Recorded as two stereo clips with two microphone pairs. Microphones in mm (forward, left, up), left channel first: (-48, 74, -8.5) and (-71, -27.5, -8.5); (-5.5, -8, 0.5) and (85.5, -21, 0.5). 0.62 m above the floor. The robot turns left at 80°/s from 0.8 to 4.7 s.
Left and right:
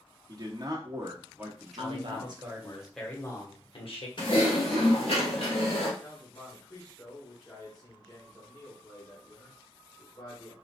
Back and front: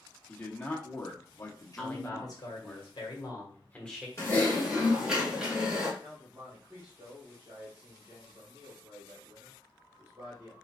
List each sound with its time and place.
0.3 s a man speaking: 120° right, 1.0 m; by 2.8 s 85° left, 1.0 m
1.8 s a man speaking: 105° right, 1.3 m; by 4.1 s 75° left, 1.3 m
4.2 s typing on a keyboard: 115° left, 1.6 m; by 5.9 s 70° left, 1.6 m
6.0 s a man speaking: 45° left, 1.8 m